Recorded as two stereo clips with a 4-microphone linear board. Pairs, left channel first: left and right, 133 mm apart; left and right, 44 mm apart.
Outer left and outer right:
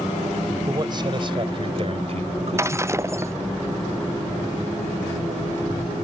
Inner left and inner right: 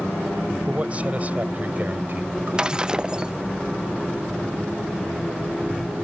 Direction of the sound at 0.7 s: 30° right (ahead or behind).